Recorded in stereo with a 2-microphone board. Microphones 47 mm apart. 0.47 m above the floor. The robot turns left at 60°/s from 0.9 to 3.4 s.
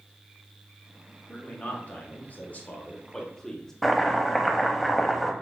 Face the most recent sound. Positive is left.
turn(degrees=0)  # may be behind; listen again after turning